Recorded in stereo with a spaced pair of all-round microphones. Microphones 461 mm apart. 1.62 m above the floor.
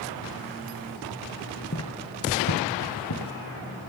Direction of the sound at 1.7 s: 30° left (ahead or behind).